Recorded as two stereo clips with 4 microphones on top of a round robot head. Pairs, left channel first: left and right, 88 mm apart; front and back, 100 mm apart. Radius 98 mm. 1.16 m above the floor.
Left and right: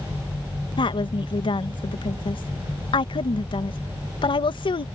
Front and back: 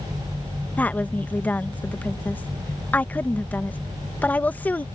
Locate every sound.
0.8 s a woman speaking: 75° left